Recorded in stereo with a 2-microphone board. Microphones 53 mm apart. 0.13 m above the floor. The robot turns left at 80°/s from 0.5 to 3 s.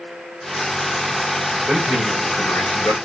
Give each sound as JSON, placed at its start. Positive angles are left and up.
{"t": 1.7, "sound": "a man speaking", "azimuth_deg": -155, "distance_m": 6.5}